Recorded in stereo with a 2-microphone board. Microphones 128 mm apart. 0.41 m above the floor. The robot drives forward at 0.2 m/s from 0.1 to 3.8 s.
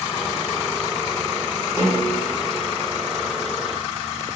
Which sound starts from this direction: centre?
A snare drum, at 1.8 s.